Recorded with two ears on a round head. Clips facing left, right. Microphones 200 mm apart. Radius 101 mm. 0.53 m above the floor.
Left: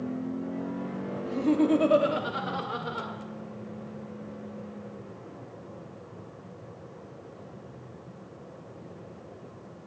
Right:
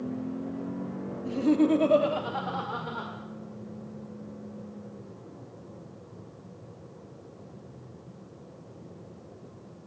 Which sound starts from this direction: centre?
Laughter, at 1.2 s.